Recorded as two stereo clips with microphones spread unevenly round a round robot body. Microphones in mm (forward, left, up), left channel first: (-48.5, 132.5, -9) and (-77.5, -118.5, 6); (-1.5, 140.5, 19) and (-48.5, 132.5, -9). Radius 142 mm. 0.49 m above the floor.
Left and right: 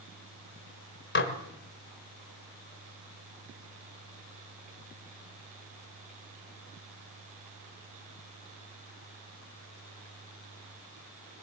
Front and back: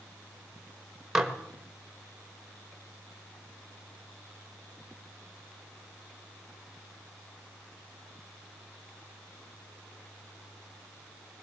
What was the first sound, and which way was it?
Dishes clattering, 125° left.